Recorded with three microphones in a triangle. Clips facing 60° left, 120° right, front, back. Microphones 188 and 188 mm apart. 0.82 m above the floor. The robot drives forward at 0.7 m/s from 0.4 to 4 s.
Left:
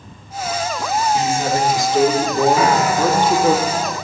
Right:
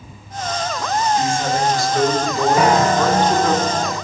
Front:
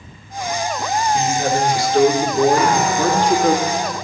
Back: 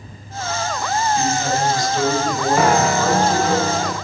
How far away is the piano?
About 1.6 m.